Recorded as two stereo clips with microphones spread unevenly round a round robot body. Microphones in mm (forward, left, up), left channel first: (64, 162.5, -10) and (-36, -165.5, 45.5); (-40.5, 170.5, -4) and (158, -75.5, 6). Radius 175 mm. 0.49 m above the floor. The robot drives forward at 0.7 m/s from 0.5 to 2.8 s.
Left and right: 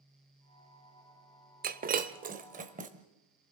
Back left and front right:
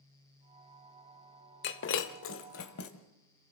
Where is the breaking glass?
175° right, 0.8 m; by 2.9 s straight behind, 1.6 m.